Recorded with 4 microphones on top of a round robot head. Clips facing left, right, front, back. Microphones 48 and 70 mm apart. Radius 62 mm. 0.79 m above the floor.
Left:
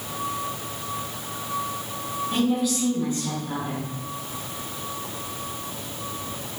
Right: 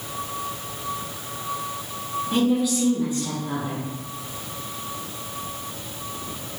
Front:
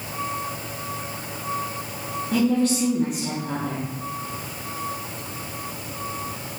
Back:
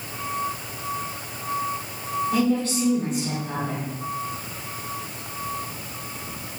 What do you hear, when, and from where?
2.3 s a woman speaking: straight ahead, 1.4 m